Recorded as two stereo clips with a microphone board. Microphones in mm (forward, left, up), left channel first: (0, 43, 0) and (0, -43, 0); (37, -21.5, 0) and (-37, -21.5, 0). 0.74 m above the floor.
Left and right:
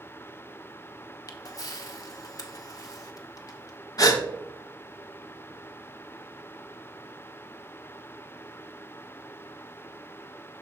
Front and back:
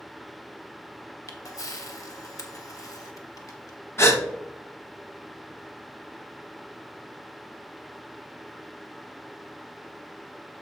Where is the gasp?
50° left, 0.9 m.